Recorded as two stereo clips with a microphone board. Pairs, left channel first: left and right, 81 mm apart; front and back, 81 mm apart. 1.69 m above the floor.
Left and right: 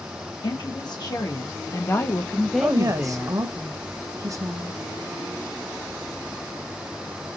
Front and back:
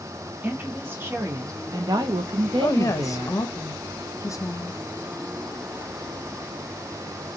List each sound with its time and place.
0.4 s a woman speaking: 110° left, 1.2 m; by 3.4 s 150° right, 0.8 m
2.6 s a woman speaking: 45° right, 0.6 m